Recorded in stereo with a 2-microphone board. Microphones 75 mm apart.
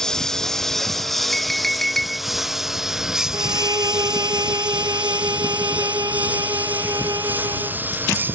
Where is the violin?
60° right (ahead or behind).